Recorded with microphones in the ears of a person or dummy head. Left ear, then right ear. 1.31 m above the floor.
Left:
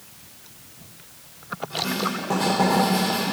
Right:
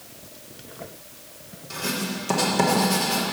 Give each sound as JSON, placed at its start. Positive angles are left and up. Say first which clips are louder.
{"t": 1.7, "sound": "writing", "louder": "left 2 dB", "side_deg": -80, "distance_m": 3.0}